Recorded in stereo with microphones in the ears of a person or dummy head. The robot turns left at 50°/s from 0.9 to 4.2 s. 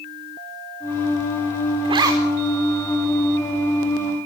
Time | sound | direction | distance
1.9 | a zipper | 30° right (ahead or behind) | 4.5 m